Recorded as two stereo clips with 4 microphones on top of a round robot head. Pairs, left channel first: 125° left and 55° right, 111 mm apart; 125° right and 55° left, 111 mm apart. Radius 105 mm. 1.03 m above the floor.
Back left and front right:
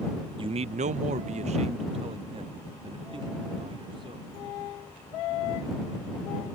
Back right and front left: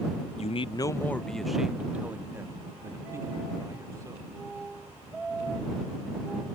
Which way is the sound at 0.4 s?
100° right.